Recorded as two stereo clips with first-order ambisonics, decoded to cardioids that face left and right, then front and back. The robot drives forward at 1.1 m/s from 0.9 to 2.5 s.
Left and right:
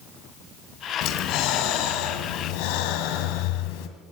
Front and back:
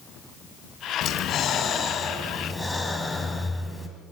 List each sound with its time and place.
1.0 s breathing: 50° left, 3 m; by 3.9 s 85° left, 2.5 m